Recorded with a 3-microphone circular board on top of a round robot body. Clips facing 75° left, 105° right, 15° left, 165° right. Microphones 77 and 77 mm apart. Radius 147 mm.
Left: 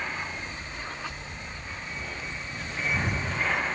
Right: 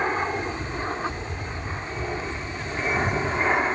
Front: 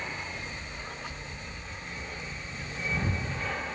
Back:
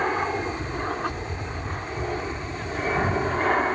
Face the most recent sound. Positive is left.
turn(degrees=-165)